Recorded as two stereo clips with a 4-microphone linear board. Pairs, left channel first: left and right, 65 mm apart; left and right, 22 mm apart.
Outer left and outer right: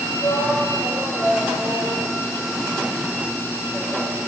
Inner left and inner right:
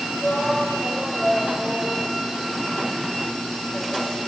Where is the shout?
25° left (ahead or behind), 9 m; by 4.2 s 5° left (ahead or behind), 9.5 m.